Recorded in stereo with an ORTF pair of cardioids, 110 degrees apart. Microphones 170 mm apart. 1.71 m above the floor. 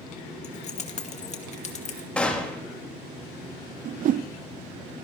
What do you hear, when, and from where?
0.4 s keys jangling: 45° left, 2 m
2.2 s a gunshot: 5° left, 3.5 m
3.9 s a whoosh: 55° right, 0.7 m